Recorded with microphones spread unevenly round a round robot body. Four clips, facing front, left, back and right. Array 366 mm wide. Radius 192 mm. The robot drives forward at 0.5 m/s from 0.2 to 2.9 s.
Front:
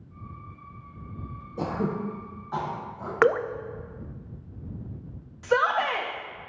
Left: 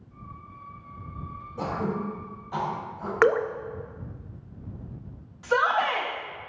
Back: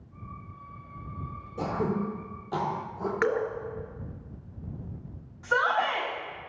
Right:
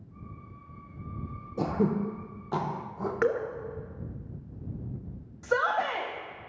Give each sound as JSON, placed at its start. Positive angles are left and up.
{"t": 1.6, "sound": "throat clearing", "azimuth_deg": -70, "distance_m": 0.7}
{"t": 3.2, "sound": "dripping", "azimuth_deg": 60, "distance_m": 0.5}
{"t": 5.4, "sound": "a shout", "azimuth_deg": -50, "distance_m": 0.9}